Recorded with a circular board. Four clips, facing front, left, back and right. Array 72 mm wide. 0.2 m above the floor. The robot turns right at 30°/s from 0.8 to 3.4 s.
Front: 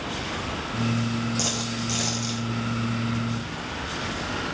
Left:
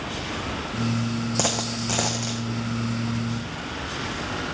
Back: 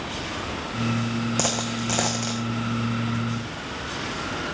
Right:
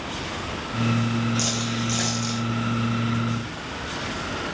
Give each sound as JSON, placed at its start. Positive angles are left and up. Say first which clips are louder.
{"t": 1.4, "sound": "a dropped coin", "louder": "even, back 3 dB", "azimuth_deg": 130, "distance_m": 1.5}